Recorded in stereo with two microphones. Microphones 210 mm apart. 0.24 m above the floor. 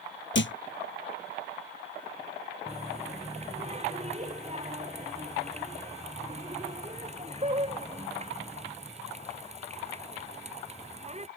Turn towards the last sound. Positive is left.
turn(degrees=-30)  # may be behind; listen again after turning